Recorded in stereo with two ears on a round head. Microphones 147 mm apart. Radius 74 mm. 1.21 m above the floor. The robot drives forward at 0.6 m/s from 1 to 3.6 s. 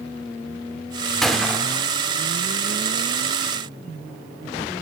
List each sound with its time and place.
1.2 s a gunshot: centre (ahead or behind), 1.7 m